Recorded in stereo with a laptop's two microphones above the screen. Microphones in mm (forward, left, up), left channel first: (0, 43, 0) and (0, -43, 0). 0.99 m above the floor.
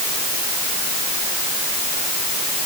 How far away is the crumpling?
I don't hear crumpling.